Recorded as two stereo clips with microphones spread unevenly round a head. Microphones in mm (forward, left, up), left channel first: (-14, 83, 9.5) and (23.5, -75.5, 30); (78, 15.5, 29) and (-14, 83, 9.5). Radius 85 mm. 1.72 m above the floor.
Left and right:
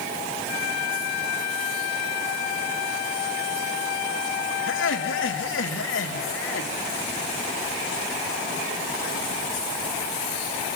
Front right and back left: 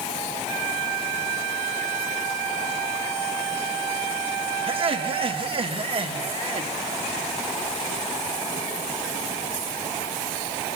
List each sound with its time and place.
4.7 s laughter: 105° left, 3 m